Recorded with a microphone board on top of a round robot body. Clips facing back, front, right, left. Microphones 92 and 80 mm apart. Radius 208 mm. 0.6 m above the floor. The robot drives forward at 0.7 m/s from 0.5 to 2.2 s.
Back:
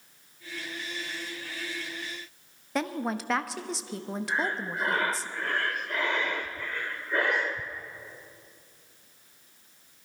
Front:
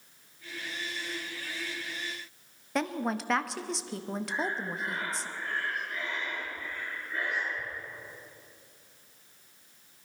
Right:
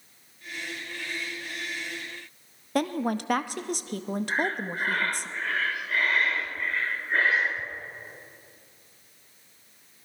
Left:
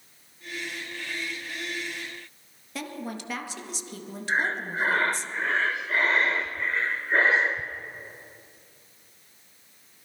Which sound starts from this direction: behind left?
Breathing, at 4.3 s.